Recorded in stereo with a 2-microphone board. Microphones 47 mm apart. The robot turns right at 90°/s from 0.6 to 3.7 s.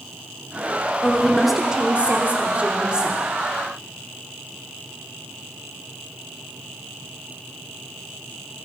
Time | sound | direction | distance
1.0 | a woman speaking | 145° left | 1.2 m